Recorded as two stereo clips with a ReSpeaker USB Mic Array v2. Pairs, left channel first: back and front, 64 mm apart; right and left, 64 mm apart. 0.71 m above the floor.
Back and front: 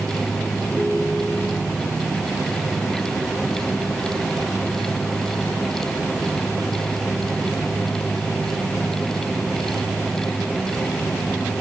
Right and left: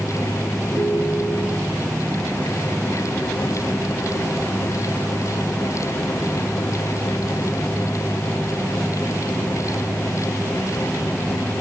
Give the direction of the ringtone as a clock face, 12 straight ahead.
9 o'clock.